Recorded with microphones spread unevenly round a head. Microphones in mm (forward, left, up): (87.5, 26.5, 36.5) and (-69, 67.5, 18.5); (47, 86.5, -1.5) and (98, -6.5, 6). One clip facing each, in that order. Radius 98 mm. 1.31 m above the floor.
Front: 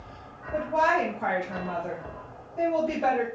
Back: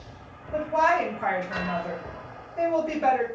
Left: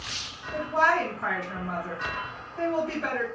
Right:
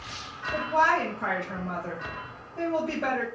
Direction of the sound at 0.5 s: 110° right.